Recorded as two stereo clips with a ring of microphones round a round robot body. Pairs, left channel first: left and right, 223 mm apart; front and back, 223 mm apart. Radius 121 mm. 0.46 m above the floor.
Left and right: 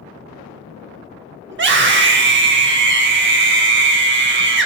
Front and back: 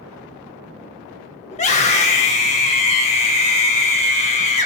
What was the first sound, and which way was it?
A scream, 60° right.